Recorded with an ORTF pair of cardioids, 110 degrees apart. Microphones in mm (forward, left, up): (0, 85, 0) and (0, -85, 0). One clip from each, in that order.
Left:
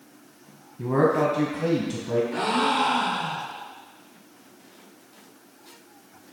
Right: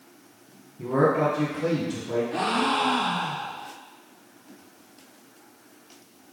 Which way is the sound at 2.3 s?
10° right.